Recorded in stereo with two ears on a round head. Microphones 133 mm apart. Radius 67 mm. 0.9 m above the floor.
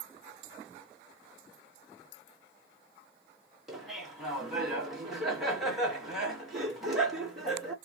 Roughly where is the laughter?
Centre.